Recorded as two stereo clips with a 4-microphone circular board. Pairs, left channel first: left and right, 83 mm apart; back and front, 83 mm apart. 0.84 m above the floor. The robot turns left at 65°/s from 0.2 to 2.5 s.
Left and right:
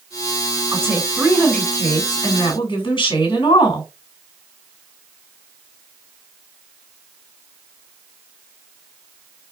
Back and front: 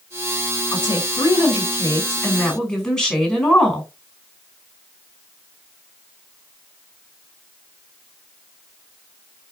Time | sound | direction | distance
0.7 | a woman speaking | 145° right | 3 m